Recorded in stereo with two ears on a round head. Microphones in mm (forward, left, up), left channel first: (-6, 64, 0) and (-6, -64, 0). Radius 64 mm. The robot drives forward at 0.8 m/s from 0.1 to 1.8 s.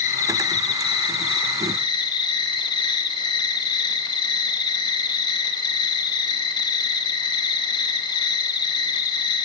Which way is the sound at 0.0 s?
55° left (ahead or behind).